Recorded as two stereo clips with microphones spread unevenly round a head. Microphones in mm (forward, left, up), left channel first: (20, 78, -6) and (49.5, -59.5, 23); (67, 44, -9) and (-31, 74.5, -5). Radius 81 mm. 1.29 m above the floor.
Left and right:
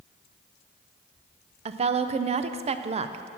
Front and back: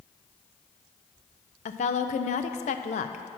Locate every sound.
1.6 s a woman speaking: 30° right, 0.5 m